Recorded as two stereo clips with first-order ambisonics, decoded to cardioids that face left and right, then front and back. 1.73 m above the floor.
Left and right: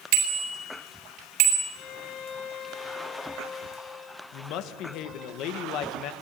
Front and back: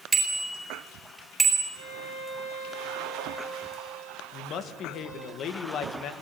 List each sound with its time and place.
0.1 s a bicycle bell: 105° right, 4 m
1.7 s a violin: 40° left, 8.5 m
4.3 s a woman speaking: 50° left, 1.9 m